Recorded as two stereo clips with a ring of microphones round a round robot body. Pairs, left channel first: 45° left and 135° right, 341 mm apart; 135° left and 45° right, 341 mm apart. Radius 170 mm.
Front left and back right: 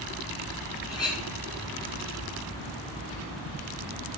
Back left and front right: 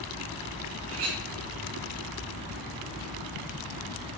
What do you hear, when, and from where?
0.9 s a clink: 35° right, 2.5 m